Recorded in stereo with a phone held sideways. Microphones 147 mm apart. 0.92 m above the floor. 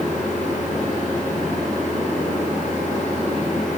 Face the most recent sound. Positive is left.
turn(degrees=55)  # may be behind; listen again after turning